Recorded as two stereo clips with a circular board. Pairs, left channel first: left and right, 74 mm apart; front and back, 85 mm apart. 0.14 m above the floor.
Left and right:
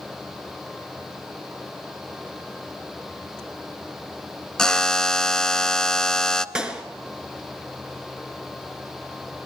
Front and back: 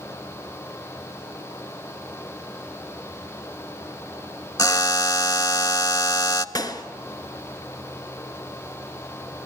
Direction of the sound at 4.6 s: 15° left.